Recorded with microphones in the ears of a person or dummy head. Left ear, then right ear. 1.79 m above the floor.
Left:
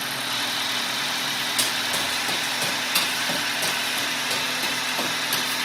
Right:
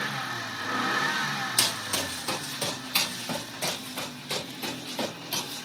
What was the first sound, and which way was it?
Running footsteps, 15° right (ahead or behind).